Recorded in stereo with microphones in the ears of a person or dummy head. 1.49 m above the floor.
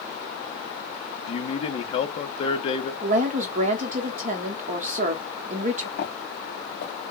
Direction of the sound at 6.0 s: 45° left (ahead or behind).